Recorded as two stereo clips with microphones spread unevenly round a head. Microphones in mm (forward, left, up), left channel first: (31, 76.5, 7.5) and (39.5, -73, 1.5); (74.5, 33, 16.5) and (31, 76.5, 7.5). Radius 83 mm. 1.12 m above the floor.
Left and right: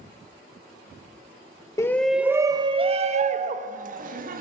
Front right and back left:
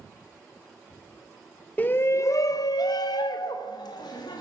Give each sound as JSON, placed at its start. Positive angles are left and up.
{"t": 1.8, "sound": "a shout", "azimuth_deg": 20, "distance_m": 0.6}